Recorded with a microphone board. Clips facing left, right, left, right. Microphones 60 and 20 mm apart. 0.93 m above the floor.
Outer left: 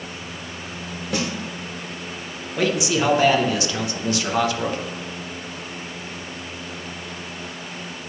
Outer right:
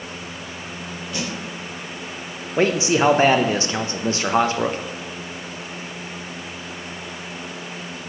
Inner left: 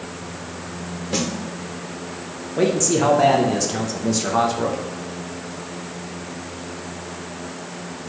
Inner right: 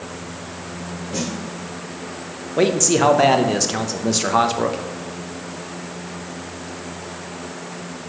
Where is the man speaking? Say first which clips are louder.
Outer right 3 dB, inner right 2 dB; 30° right (ahead or behind), 0.6 m.